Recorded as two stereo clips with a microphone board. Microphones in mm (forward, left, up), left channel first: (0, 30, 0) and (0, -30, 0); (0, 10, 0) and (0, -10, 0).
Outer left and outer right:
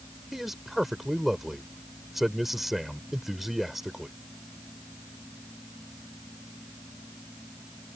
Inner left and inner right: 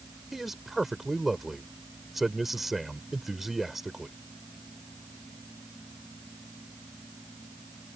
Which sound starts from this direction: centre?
A man speaking, at 0.3 s.